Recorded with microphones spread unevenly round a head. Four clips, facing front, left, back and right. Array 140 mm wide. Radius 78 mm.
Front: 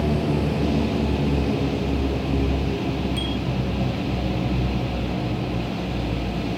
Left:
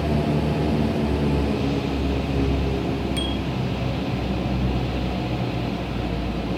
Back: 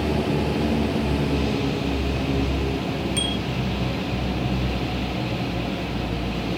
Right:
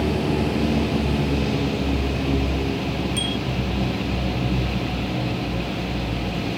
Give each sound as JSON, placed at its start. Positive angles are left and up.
{"t": 3.2, "sound": "a bicycle bell", "azimuth_deg": 150}